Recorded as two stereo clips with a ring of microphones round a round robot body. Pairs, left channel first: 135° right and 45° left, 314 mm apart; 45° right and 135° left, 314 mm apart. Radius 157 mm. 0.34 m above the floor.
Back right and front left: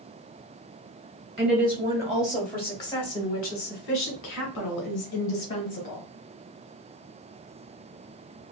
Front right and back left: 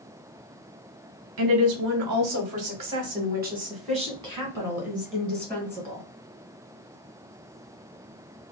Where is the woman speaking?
105° left, 1.3 m; by 6.0 s 110° right, 1.9 m.